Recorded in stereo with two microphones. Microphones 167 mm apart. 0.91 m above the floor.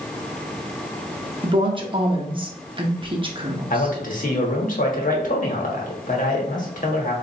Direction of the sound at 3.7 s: 55° left (ahead or behind).